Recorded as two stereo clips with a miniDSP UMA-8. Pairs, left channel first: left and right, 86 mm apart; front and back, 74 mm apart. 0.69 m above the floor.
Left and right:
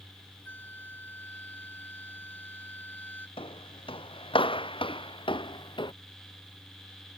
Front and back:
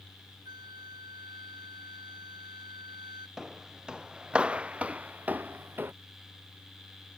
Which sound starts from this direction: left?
Footsteps, at 3.4 s.